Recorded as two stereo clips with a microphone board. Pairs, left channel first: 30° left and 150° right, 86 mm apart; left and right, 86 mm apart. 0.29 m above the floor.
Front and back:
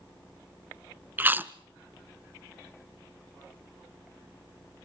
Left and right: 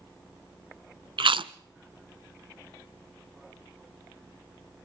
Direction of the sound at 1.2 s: 85° right.